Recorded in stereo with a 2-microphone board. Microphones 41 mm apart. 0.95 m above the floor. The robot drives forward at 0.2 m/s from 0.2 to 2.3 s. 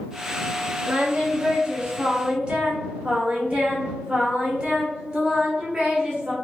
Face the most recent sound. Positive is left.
turn(degrees=-25)  # may be behind; listen again after turning